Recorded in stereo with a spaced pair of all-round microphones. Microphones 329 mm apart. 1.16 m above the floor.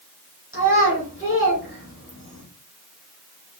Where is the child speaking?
40° left (ahead or behind), 3 m.